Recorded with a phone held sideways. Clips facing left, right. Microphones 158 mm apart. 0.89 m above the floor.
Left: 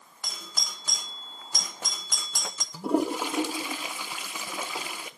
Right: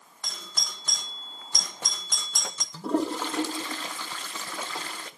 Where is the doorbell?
5° left (ahead or behind), 0.9 m.